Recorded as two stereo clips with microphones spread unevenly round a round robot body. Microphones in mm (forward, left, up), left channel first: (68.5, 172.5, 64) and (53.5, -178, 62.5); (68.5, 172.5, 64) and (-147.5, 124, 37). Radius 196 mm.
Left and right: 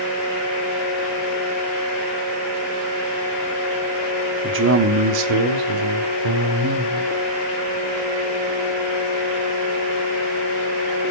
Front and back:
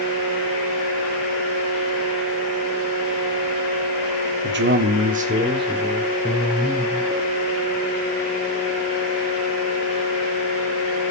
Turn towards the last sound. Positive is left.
turn(degrees=-70)